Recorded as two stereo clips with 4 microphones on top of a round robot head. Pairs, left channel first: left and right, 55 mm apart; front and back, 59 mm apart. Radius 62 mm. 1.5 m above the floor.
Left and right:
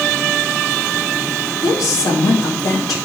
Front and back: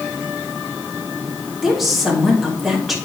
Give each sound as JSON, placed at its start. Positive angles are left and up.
{"t": 1.6, "sound": "a woman speaking", "azimuth_deg": 90, "distance_m": 2.5}